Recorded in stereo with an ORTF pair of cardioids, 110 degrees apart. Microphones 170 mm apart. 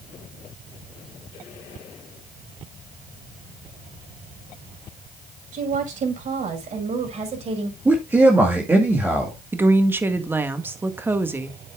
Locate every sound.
5.5 s a woman speaking: 50° right, 5.5 m; by 7.8 s 40° right, 5 m
7.8 s a man speaking: 10° right, 2 m
9.5 s a woman speaking: 15° right, 1.6 m